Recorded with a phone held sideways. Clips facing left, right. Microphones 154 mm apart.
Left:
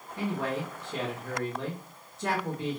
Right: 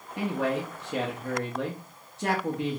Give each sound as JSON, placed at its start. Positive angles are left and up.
{"t": 0.2, "sound": "a man speaking", "side_deg": -75, "distance_m": 0.7}